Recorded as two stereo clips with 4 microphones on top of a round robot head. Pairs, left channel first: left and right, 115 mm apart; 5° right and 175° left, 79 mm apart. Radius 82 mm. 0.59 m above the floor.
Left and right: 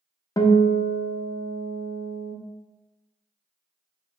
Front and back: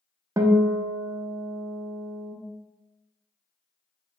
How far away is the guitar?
About 0.5 m.